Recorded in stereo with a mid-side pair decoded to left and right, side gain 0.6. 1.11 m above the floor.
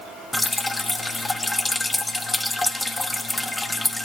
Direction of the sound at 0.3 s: 15° left.